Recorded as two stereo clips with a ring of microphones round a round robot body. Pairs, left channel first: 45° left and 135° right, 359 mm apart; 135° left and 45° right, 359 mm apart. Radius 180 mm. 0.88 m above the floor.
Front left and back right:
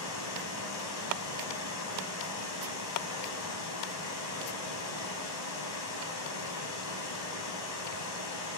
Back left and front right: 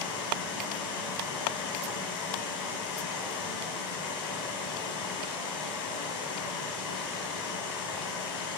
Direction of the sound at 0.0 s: 90° left.